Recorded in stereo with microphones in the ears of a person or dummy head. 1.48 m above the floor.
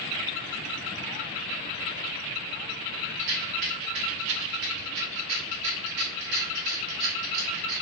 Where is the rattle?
60° right (ahead or behind), 0.7 m.